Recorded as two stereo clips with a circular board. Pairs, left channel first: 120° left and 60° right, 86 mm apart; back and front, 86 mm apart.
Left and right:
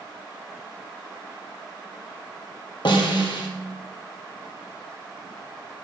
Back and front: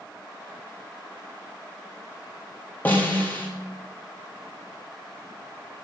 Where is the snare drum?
115° left, 0.6 m.